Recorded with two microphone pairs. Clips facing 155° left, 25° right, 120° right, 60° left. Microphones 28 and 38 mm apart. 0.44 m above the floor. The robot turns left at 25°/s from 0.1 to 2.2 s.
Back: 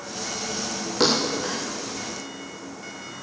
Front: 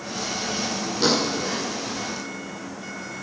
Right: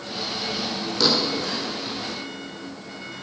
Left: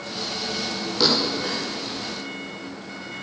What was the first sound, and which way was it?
A thud, 140° left.